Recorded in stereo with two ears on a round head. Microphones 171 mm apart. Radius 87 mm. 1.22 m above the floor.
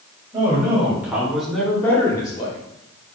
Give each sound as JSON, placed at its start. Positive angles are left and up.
{"t": 0.3, "sound": "a man speaking", "side_deg": -20, "distance_m": 4.5}